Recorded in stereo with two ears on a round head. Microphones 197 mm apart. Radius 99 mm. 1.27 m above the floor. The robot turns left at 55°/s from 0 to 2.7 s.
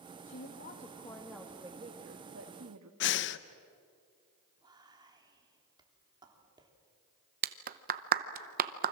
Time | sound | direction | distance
0.2 | a woman speaking | 60° left | 1.5 m
3.0 | breathing | 55° left (ahead or behind) | 0.6 m
4.6 | whispering | 20° right (ahead or behind) | 3.5 m
7.4 | a clap | 40° right (ahead or behind) | 0.8 m